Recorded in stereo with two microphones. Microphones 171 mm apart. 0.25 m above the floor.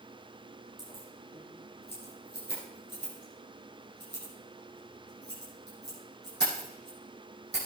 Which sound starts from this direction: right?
Keys jangling, at 0.8 s.